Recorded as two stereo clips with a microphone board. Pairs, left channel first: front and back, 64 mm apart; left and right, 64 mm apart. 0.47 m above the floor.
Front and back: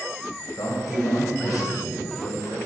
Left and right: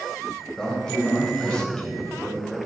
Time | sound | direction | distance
0.6 | a man speaking | 15° left | 2.5 m